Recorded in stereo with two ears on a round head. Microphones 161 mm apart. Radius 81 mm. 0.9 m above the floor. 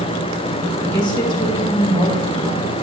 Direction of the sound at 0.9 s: 25° left (ahead or behind).